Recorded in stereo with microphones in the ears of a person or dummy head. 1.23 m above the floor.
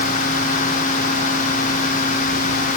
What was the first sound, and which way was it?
Only background noise.